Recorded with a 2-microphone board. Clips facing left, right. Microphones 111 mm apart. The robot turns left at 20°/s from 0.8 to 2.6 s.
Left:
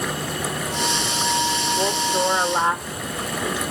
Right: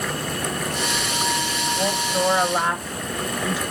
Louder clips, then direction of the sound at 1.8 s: Even; 35° left (ahead or behind).